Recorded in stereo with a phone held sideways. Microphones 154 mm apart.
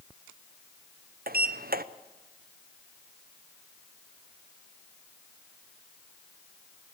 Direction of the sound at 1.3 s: 80° right.